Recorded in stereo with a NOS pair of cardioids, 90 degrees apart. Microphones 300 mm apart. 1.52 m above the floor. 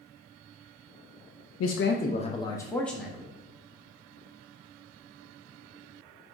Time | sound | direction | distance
1.6 | a man speaking | 50° left | 0.5 m